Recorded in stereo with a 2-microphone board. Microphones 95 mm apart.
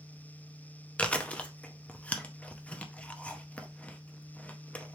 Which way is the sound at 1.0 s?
15° left (ahead or behind).